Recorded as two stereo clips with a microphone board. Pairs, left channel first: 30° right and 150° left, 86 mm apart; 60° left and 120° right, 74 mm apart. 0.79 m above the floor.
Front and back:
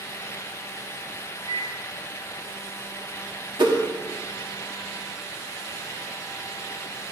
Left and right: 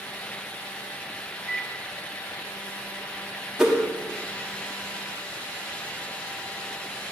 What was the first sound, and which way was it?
A microwave, 30° right.